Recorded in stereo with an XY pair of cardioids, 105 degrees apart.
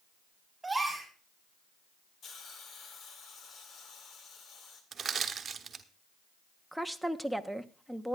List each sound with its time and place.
0.6 s a gasp: 15° right, 5.5 m
2.2 s a hiss: 60° left, 2 m
4.9 s crushing: 45° right, 1.1 m
6.7 s a woman speaking: straight ahead, 0.9 m